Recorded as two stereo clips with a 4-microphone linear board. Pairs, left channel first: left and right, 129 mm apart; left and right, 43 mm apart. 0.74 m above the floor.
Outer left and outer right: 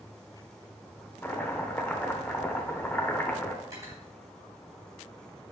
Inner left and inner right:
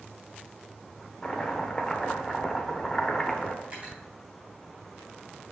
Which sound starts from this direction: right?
Cutlery clinking, at 3.6 s.